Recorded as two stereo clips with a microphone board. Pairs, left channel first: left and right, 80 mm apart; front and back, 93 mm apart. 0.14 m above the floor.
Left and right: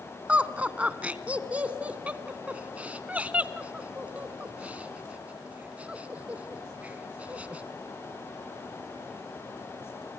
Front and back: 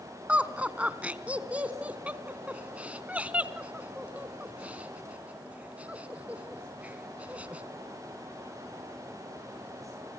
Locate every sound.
0.3 s laughter: 130° right, 1.3 m